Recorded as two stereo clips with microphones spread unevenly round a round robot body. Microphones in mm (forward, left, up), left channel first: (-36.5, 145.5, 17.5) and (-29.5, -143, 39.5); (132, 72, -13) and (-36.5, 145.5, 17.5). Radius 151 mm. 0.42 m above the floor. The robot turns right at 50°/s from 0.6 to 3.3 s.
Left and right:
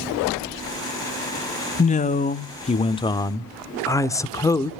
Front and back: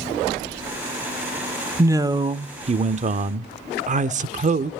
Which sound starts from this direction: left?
A man speaking, at 1.8 s.